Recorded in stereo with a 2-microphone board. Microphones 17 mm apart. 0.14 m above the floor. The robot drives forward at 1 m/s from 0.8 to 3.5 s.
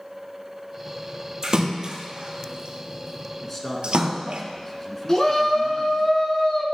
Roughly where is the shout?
Left.